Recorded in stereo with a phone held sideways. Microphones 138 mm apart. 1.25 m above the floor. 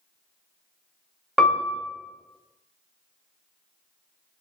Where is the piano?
Centre (ahead or behind), 0.6 m.